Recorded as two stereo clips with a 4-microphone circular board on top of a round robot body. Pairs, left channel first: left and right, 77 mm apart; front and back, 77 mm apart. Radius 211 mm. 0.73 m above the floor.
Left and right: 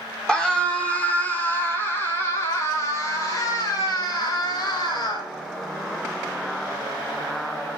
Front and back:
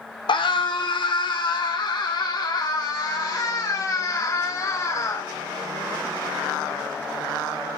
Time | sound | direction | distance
0.3 | a scream | 10° left | 3.5 m